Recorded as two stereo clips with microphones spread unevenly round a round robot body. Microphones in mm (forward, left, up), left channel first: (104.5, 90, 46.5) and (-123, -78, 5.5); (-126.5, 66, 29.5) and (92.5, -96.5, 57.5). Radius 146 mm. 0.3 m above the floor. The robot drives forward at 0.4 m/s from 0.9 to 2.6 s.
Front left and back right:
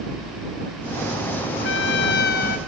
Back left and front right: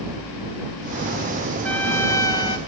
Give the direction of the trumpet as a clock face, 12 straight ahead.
10 o'clock.